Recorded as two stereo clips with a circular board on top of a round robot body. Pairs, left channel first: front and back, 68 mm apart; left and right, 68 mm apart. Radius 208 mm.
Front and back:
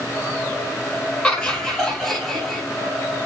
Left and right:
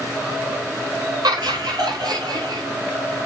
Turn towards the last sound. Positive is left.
turn(degrees=-85)